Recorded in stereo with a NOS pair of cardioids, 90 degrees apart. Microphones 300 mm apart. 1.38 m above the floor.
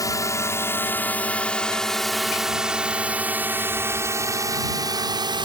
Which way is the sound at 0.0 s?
10° left.